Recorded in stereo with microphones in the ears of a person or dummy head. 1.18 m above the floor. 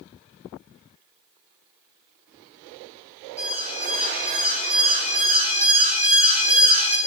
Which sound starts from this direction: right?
An alarm, at 3.4 s.